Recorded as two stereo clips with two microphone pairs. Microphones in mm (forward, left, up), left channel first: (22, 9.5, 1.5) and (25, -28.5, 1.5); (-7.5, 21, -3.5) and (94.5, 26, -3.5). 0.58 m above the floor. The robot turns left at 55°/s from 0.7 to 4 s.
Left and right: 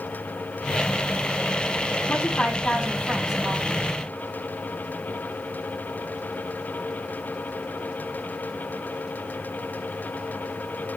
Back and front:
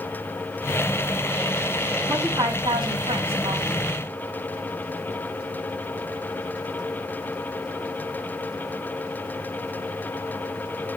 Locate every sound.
2.1 s a woman speaking: 60° left, 5 m; by 3.7 s 25° right, 5 m